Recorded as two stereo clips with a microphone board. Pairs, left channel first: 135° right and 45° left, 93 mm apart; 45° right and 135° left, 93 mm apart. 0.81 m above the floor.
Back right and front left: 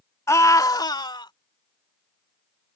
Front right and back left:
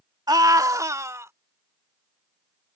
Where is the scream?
170° left; by 1.3 s 165° right.